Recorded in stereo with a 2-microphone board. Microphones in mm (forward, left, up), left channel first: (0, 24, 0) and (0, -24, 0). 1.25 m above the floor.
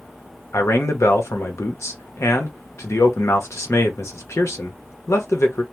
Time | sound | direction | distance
0.5 | a man speaking | 75° left (ahead or behind) | 0.9 m